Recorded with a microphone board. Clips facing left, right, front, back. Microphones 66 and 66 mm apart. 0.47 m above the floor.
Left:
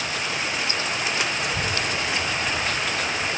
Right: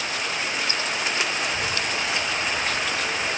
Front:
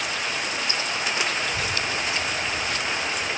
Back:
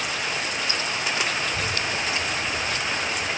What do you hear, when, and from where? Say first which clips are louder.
1.4 s a child speaking: left 1 dB, even; 70° left, 0.8 m; by 3.4 s 105° right, 0.6 m